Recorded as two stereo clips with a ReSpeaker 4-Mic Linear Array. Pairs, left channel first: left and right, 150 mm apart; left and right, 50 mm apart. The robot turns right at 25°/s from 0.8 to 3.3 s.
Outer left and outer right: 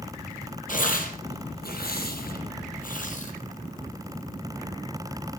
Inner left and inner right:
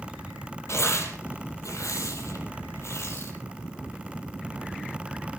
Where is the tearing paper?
65° left (ahead or behind), 4.5 m; by 3.3 s 55° left (ahead or behind), 4.5 m.